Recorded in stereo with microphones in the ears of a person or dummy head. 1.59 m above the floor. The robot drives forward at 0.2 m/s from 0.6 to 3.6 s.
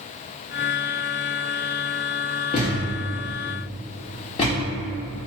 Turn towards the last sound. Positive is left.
turn(degrees=25)  # may be behind; listen again after turning